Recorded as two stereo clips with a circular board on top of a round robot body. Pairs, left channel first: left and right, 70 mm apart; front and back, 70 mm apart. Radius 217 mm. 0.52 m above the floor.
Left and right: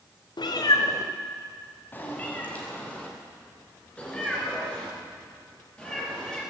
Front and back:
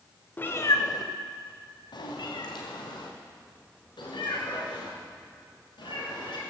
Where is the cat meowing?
70° left, 0.5 m; by 6.4 s 10° left, 4.5 m.